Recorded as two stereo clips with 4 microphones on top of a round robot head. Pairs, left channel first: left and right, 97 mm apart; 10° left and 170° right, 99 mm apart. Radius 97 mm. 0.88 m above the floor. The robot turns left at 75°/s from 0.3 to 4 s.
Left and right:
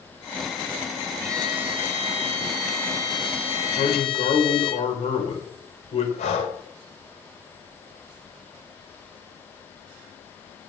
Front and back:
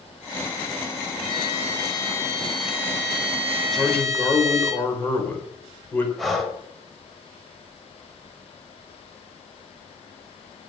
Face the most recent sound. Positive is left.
turn(degrees=100)